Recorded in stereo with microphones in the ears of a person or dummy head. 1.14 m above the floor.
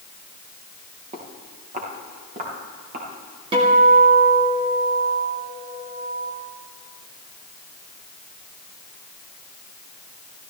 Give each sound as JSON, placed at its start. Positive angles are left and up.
{"t": 1.1, "sound": "footsteps", "side_deg": -35, "distance_m": 3.5}
{"t": 3.5, "sound": "a guitar", "side_deg": -25, "distance_m": 2.5}